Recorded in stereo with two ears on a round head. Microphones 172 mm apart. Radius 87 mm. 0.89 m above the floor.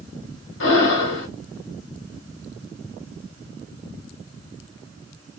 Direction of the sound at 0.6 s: 70° left (ahead or behind).